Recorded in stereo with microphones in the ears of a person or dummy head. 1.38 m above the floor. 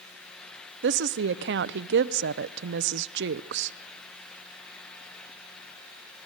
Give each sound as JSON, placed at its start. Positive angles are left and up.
{"t": 0.8, "sound": "a woman speaking", "side_deg": -60, "distance_m": 0.6}